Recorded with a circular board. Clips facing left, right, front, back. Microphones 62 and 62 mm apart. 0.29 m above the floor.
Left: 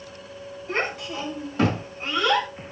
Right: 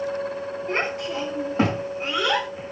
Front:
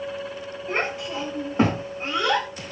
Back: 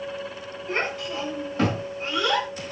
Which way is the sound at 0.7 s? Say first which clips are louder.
Right 1 dB, front 1 dB; 70° right.